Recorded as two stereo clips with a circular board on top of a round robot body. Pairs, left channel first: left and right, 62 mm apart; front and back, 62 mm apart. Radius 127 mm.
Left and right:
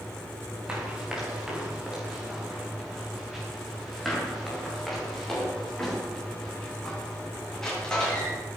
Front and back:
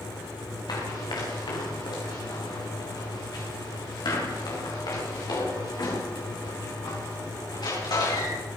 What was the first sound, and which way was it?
Running footsteps, 15° right.